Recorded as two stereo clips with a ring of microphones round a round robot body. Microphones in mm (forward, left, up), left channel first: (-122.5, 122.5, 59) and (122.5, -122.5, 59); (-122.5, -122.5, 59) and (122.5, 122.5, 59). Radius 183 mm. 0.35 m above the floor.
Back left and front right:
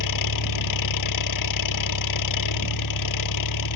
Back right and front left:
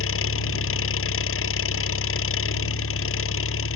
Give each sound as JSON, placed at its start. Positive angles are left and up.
{"t": 0.0, "sound": "an engine running", "azimuth_deg": 170}